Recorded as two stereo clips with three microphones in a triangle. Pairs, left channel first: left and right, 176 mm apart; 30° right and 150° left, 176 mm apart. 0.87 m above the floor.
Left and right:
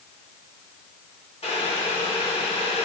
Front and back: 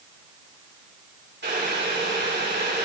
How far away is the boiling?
About 3.5 m.